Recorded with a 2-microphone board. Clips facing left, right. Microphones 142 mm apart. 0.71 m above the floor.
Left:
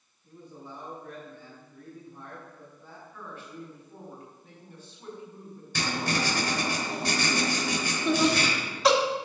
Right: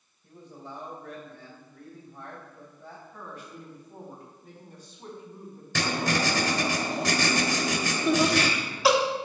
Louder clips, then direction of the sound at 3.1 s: Left 3 dB; 40° right (ahead or behind).